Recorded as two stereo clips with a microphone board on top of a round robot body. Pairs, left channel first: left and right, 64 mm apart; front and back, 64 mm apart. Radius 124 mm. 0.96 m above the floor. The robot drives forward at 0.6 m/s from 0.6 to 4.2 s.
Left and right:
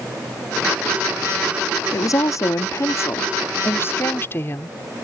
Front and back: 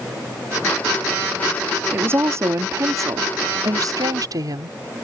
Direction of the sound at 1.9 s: 125° left.